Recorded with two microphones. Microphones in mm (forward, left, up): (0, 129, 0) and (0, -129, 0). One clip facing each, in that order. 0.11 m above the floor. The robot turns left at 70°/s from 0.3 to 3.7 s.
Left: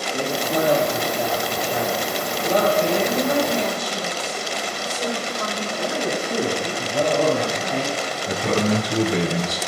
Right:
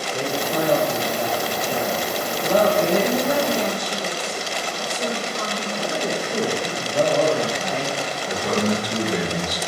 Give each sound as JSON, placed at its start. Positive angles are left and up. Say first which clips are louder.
{"t": 0.1, "sound": "a man speaking", "louder": "left 1 dB", "azimuth_deg": 70, "distance_m": 2.5}
{"t": 3.0, "sound": "a woman speaking", "louder": "even", "azimuth_deg": -135, "distance_m": 3.0}
{"t": 5.8, "sound": "a man speaking", "louder": "left 1 dB", "side_deg": 20, "distance_m": 2.5}
{"t": 8.3, "sound": "a man speaking", "louder": "left 1 dB", "side_deg": 30, "distance_m": 1.1}